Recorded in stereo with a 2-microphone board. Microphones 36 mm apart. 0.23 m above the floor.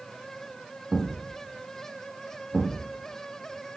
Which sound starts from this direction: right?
A thud, at 0.9 s.